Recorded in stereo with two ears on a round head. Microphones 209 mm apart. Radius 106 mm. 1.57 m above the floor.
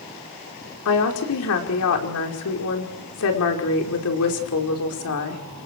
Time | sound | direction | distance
0.8 | a woman speaking | 75° left (ahead or behind) | 5 m